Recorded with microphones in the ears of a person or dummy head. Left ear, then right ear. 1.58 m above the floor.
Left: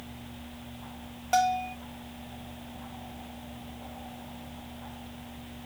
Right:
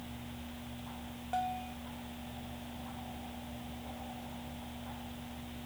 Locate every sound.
1.3 s a bell: 60° left (ahead or behind)